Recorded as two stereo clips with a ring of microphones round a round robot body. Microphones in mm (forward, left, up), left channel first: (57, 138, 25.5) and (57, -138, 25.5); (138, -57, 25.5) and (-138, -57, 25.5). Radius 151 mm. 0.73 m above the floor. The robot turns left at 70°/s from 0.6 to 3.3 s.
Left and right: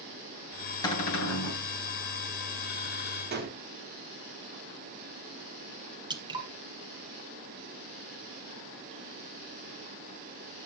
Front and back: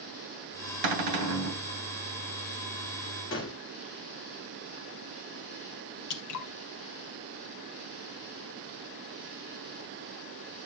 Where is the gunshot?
40° right, 2.5 m.